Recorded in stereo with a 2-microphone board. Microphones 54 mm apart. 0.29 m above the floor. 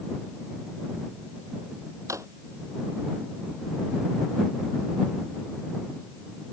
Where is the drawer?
70° right (ahead or behind).